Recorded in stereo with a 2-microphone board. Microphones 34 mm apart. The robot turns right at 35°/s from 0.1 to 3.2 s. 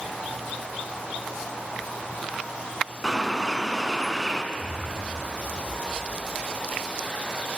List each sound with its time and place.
3.0 s a bird: 5° left (ahead or behind), 0.8 m; by 4.4 s 10° left (ahead or behind), 0.8 m
4.5 s an explosion: 40° right (ahead or behind), 3.5 m